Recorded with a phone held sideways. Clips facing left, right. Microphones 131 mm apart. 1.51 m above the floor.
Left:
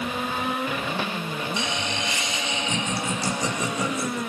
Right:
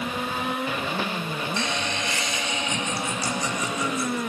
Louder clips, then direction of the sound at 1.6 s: Even; 15° left (ahead or behind).